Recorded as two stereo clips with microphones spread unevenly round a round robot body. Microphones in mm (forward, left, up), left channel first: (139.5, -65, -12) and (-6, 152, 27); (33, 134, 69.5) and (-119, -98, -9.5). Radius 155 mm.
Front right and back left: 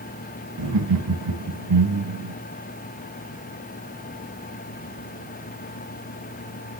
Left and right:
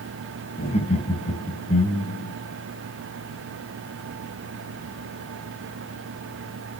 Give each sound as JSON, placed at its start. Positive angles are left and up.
{"t": 0.6, "sound": "laughter", "azimuth_deg": 130, "distance_m": 3.0}